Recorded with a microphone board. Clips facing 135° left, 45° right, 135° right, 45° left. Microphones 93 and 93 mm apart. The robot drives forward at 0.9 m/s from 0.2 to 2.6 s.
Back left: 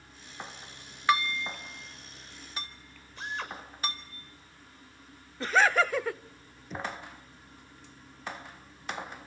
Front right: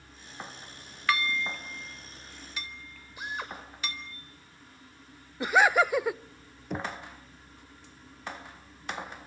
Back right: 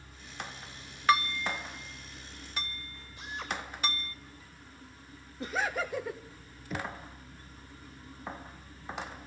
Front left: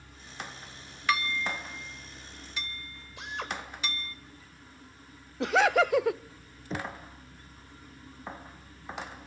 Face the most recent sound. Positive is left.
turn(degrees=-15)